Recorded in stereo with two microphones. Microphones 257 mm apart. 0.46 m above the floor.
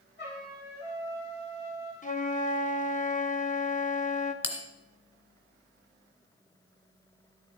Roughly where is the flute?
Left.